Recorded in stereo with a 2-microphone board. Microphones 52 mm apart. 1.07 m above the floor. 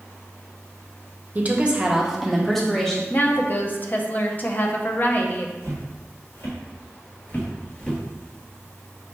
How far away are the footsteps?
About 1.8 m.